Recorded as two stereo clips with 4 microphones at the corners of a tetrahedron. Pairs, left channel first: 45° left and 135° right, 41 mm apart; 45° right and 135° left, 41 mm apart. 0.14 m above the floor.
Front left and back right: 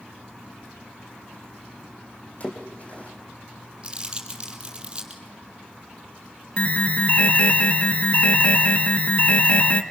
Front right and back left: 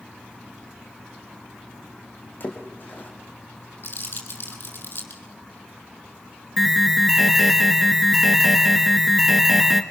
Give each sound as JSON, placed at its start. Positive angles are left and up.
{"t": 2.4, "sound": "a splash", "azimuth_deg": -5, "distance_m": 5.0}
{"t": 3.8, "sound": "crumpling", "azimuth_deg": -70, "distance_m": 5.0}
{"t": 6.6, "sound": "an alarm", "azimuth_deg": 60, "distance_m": 1.4}